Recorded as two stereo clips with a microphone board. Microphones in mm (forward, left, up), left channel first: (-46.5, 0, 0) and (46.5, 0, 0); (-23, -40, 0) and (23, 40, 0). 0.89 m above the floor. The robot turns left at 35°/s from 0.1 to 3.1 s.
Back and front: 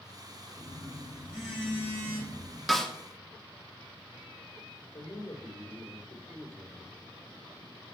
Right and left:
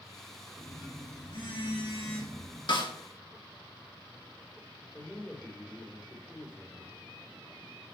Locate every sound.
0.6 s a phone buzzing: 65° right, 4.5 m; by 2.6 s 135° right, 4.5 m
2.7 s a snare drum: 90° right, 1.5 m; by 2.9 s 95° right, 1.5 m
4.9 s a man speaking: straight behind, 2.5 m